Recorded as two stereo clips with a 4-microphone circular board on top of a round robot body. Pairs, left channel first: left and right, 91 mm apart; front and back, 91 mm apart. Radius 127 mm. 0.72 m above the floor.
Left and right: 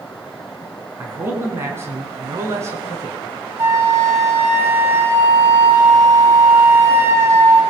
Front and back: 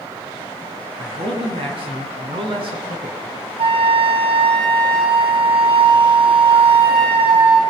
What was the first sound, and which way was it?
A man speaking, 155° right.